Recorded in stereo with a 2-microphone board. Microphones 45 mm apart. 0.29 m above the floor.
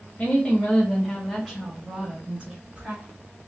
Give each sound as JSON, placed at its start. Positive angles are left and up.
{"t": 0.2, "sound": "a woman speaking", "side_deg": 30, "distance_m": 1.0}